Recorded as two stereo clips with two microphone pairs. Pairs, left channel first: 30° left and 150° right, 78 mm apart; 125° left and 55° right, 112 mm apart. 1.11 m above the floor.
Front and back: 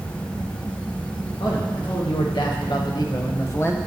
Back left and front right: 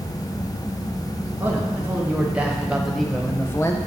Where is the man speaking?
15° left, 1.8 m; by 3.8 s 85° left, 0.8 m.